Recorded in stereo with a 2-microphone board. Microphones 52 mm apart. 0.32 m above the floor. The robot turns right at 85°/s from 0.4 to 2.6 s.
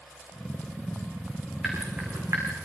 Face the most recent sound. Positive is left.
turn(degrees=-85)